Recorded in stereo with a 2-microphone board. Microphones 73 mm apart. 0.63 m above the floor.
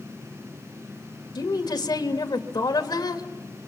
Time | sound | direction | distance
1.4 | a woman speaking | 70° left (ahead or behind) | 1.9 m